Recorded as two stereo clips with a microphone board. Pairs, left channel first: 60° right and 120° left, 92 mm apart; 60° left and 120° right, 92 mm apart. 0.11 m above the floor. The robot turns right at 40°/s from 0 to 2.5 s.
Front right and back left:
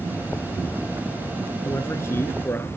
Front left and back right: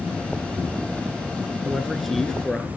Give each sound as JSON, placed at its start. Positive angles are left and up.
{"t": 1.6, "sound": "a man speaking", "azimuth_deg": -45, "distance_m": 1.3}